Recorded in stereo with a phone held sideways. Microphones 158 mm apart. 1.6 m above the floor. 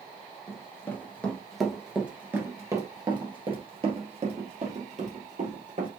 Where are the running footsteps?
20° left (ahead or behind), 1.8 m; by 5.9 s 55° right (ahead or behind), 2.5 m.